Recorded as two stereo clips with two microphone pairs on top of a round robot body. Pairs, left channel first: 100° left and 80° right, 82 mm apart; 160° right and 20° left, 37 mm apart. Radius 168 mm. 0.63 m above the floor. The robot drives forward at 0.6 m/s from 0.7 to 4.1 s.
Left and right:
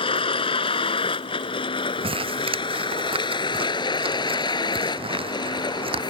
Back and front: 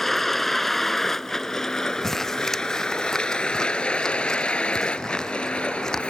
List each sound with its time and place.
0.0 s a vehicle: 115° left; by 6.1 s 135° left
2.0 s crumpling: 80° right; by 6.0 s 85° right